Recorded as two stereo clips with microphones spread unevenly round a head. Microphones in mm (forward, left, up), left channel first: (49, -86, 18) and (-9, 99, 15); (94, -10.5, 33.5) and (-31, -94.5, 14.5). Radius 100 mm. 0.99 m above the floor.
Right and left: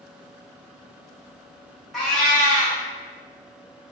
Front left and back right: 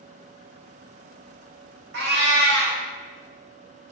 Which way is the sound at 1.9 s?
160° right.